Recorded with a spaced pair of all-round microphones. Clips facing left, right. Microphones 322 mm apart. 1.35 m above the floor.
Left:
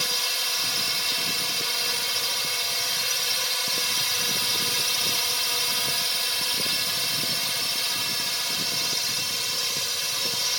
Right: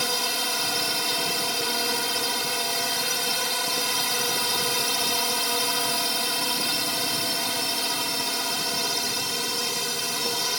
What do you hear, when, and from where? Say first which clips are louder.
0.0 s a drone: right 7 dB; 60° right (ahead or behind)